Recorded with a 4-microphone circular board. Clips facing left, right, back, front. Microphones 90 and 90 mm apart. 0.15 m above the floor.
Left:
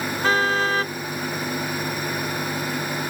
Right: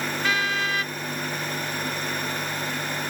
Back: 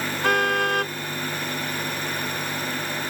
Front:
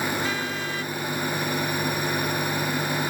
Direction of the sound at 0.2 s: 145° left.